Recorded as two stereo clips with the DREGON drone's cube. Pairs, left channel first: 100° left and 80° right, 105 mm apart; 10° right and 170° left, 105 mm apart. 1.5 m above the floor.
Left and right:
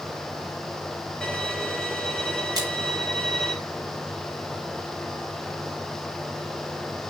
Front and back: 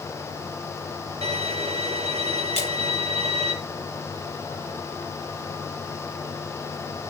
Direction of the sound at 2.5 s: 25° right.